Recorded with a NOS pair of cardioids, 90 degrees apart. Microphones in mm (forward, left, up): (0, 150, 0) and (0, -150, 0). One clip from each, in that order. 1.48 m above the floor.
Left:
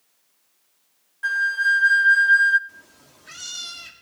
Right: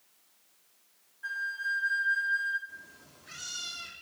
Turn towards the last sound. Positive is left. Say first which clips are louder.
# even
turn(degrees=35)